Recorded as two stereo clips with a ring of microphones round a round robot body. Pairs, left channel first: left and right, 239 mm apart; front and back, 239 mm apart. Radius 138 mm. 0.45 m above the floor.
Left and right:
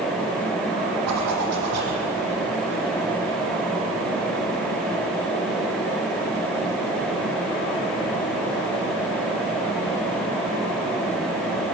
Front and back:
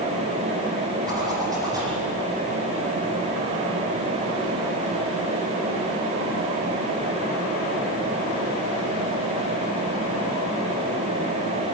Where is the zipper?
105° right, 6.5 m.